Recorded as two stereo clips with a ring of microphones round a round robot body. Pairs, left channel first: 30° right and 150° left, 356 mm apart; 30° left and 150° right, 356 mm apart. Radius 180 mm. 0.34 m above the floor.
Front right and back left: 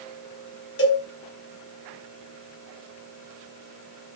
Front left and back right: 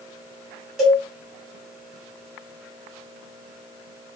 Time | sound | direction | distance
0.8 | a cowbell | 60° right | 1.7 m